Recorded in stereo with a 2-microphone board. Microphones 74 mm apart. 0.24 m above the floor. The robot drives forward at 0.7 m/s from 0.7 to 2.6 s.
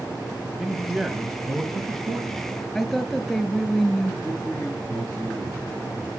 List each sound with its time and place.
0.6 s a man speaking: 5° right (ahead or behind), 1.0 m
2.8 s a woman speaking: 5° left (ahead or behind), 1.5 m
4.2 s a man speaking: 25° left (ahead or behind), 3.5 m